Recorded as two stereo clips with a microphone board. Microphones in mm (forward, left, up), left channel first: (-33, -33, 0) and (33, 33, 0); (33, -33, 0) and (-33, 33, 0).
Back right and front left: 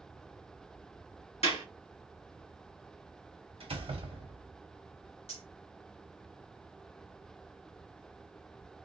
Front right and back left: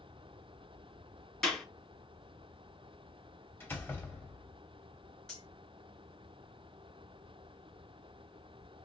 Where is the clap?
130° right, 2 m.